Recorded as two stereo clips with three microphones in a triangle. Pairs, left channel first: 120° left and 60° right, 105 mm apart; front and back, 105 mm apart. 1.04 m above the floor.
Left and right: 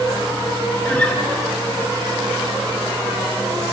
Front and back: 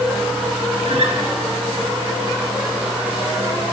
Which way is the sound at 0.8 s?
165° right.